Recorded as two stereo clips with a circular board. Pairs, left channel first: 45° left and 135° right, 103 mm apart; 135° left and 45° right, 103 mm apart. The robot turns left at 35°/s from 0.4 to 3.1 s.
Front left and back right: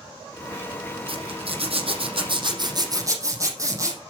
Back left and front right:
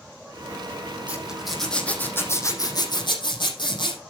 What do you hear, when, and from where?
1.1 s a zipper: 120° right, 5 m; by 4.0 s 170° left, 5 m